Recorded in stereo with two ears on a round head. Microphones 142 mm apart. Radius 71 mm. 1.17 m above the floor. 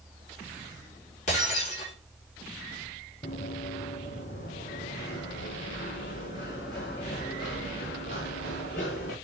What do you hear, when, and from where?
1.3 s breaking glass: 50° left (ahead or behind), 5 m
3.2 s running footsteps: 40° left (ahead or behind), 1.8 m; by 9.1 s 60° left (ahead or behind), 5 m